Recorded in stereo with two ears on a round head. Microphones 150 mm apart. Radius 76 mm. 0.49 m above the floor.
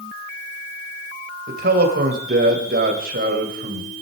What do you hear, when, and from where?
1.5 s a man speaking: 60° right (ahead or behind), 3 m